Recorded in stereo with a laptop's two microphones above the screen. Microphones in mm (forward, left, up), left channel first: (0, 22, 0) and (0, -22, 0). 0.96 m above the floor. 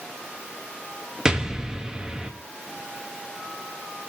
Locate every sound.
1.2 s an explosion: 15° right (ahead or behind), 1.8 m